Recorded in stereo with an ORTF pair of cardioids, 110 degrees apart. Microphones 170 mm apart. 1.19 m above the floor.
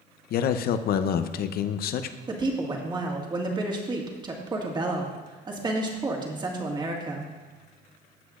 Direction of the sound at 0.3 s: 65° left.